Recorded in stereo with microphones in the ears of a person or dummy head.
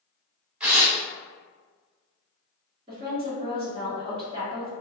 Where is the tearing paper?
5° right (ahead or behind), 0.7 m.